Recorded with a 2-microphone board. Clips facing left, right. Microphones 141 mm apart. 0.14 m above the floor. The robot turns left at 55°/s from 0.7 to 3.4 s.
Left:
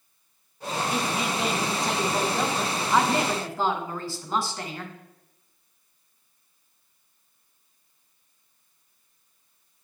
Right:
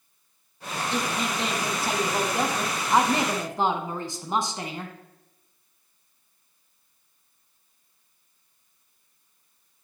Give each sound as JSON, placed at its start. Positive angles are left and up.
{"t": 0.9, "sound": "a woman speaking", "side_deg": 10, "distance_m": 1.0}